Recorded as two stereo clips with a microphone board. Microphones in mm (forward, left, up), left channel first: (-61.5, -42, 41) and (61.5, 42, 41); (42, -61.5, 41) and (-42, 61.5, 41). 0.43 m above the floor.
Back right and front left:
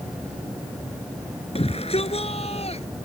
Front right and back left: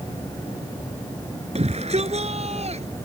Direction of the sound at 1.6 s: 170° left.